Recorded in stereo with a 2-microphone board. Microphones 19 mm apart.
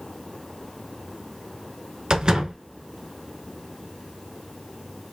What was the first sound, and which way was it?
A door slam, 35° right (ahead or behind).